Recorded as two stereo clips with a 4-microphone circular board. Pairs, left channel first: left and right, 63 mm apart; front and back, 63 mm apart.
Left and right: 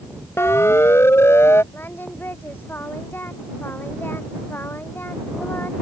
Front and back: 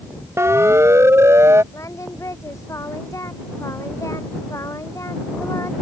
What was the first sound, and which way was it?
A siren, 135° left.